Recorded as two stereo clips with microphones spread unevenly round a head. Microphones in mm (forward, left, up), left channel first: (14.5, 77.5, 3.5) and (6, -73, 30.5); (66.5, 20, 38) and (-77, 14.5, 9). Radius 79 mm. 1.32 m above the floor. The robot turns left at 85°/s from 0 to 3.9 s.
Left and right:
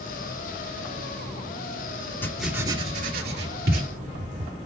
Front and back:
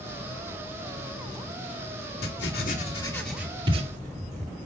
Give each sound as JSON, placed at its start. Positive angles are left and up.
{"t": 2.2, "sound": "writing", "azimuth_deg": 10, "distance_m": 2.5}